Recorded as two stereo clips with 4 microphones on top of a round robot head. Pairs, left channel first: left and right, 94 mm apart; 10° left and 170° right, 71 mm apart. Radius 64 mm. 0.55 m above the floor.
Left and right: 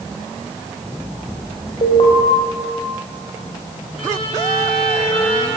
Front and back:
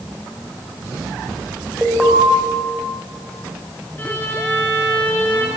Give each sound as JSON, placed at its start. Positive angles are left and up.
{"t": 1.8, "sound": "an alarm", "azimuth_deg": 110, "distance_m": 4.5}
{"t": 4.0, "sound": "a violin", "azimuth_deg": 75, "distance_m": 8.0}